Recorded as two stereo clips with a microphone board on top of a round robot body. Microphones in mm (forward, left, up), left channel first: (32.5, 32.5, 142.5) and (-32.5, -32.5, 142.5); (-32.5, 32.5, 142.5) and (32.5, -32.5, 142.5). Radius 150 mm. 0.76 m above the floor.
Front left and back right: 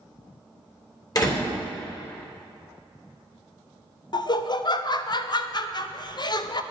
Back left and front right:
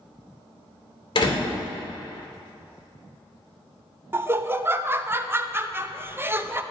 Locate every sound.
1.1 s a door slam: 95° left, 3 m
4.1 s laughter: 15° left, 0.8 m